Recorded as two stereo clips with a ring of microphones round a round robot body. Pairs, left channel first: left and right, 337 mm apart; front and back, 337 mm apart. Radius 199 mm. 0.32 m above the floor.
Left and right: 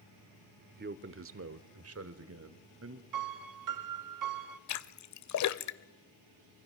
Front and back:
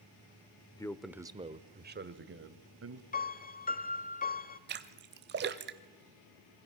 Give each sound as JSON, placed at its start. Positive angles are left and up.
{"t": 0.8, "sound": "a man speaking", "azimuth_deg": -65, "distance_m": 1.0}
{"t": 3.1, "sound": "a piano", "azimuth_deg": -65, "distance_m": 1.1}
{"t": 4.7, "sound": "a splash", "azimuth_deg": 125, "distance_m": 0.9}